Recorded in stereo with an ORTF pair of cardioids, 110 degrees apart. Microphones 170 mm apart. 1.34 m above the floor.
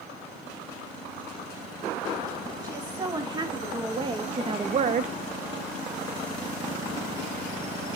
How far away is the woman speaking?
About 3.5 m.